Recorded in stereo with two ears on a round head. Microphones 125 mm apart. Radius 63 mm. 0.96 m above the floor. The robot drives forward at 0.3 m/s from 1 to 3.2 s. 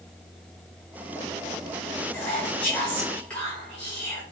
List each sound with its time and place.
2.1 s whispering: 10° left (ahead or behind), 0.8 m